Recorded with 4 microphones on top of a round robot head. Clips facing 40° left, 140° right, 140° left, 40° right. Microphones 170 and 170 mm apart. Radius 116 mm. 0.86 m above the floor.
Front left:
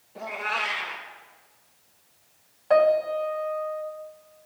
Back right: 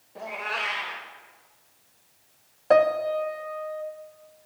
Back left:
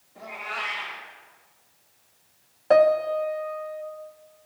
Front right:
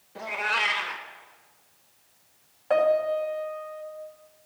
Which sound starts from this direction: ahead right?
A cat meowing, at 0.1 s.